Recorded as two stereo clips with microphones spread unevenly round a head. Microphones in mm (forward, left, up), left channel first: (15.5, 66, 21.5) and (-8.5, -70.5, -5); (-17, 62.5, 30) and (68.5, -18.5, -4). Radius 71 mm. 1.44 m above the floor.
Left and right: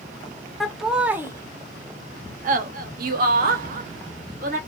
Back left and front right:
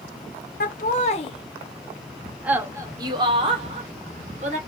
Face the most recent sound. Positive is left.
turn(degrees=-75)